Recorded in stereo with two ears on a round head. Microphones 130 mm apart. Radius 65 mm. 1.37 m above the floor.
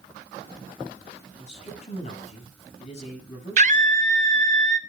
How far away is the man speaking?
About 7 m.